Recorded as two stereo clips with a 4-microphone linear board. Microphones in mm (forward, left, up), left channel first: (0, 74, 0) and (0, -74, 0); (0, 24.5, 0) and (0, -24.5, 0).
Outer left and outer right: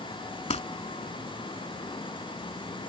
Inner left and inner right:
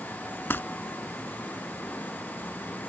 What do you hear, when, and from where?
0.5 s crumpling: 45° left (ahead or behind)